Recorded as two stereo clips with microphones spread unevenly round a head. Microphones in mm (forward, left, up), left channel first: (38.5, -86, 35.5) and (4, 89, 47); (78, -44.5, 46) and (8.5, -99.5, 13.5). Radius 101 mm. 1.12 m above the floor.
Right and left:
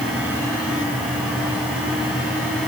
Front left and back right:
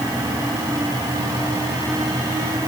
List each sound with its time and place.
Only background noise.